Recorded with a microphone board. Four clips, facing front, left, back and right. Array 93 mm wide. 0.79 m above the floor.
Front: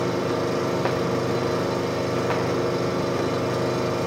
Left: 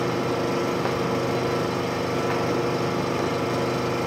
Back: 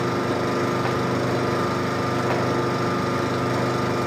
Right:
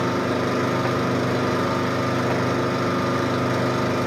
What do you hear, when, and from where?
0.0 s an engine running: 120° right, 6 m